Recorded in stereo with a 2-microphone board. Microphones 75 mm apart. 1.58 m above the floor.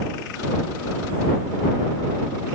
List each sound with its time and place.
Only background noise.